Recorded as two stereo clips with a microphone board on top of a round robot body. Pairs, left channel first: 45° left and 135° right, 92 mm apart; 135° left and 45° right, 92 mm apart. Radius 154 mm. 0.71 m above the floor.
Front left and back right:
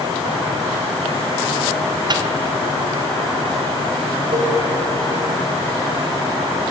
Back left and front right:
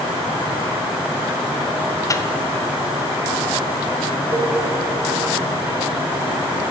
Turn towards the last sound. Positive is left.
turn(degrees=-105)